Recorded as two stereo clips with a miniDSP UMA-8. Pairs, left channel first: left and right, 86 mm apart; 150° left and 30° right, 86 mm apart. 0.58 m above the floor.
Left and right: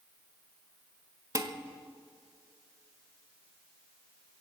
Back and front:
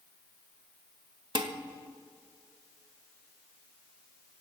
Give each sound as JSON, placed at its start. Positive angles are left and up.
{"t": 1.4, "sound": "dishes clattering", "azimuth_deg": -45, "distance_m": 1.4}